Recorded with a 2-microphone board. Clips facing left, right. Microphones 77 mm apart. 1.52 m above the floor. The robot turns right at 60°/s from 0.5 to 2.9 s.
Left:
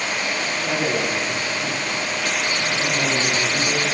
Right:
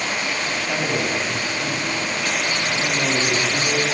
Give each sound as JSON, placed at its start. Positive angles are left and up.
{"t": 0.6, "sound": "a man speaking", "azimuth_deg": 115, "distance_m": 3.0}